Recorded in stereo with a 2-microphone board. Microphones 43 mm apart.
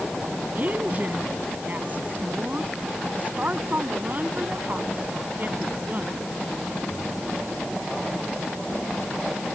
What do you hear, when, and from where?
0.6 s a woman speaking: 40° right (ahead or behind)